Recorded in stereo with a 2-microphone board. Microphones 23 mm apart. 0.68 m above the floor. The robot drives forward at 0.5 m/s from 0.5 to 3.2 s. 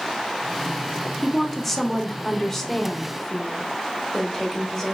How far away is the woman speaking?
About 0.7 m.